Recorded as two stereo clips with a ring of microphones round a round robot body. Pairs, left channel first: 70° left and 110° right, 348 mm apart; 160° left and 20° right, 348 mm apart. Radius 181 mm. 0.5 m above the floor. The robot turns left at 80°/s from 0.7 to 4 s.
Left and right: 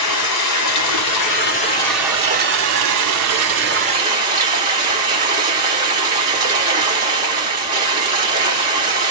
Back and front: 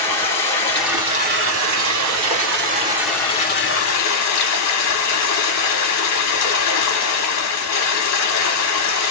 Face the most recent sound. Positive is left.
turn(degrees=175)